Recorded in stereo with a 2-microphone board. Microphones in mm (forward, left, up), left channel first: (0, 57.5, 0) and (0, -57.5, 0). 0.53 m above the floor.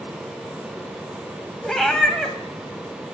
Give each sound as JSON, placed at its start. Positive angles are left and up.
{"t": 1.6, "sound": "a cat meowing", "side_deg": 5, "distance_m": 1.4}